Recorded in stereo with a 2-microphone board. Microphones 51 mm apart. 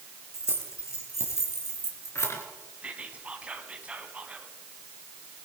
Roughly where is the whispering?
Right.